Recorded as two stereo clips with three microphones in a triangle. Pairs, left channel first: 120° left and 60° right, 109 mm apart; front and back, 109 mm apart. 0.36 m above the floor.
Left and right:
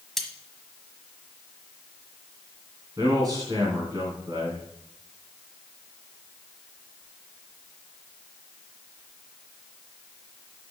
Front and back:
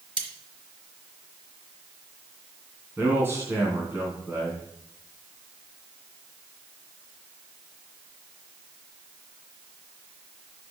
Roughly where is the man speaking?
Right.